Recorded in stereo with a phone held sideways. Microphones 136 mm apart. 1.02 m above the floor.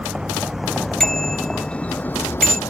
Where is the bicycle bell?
5° left (ahead or behind).